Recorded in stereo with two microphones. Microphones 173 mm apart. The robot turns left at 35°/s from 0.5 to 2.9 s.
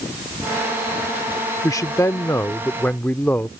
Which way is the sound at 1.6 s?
20° left (ahead or behind).